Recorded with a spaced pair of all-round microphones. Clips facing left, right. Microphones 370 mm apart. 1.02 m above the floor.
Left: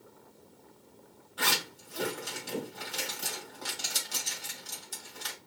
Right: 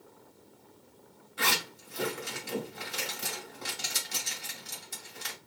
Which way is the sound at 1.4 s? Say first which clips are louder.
Right 1 dB; 35° right (ahead or behind).